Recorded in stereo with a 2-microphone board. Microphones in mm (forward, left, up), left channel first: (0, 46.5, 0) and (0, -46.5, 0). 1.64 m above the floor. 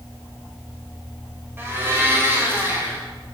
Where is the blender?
25° right (ahead or behind), 1.0 m.